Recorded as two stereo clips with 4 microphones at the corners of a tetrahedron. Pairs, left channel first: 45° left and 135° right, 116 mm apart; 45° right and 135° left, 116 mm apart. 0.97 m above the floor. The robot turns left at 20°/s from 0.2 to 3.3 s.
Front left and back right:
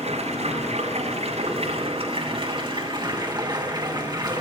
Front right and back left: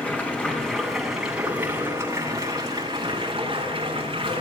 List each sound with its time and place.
0.0 s running water: 120° right, 7.5 m; by 4.4 s 175° left, 7.5 m